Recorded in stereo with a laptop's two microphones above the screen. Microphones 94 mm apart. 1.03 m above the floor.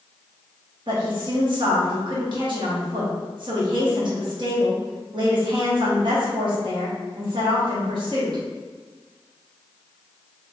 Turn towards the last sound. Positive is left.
turn(degrees=-55)  # may be behind; listen again after turning